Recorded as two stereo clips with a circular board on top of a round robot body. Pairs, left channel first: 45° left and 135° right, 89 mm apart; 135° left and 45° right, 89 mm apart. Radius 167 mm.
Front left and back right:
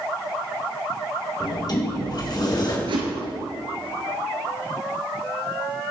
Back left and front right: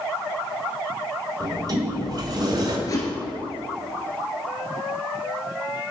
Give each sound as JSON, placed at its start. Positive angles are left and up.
{"t": 1.4, "sound": "a sliding door", "azimuth_deg": 0, "distance_m": 1.7}
{"t": 2.9, "sound": "a whoosh", "azimuth_deg": -170, "distance_m": 1.5}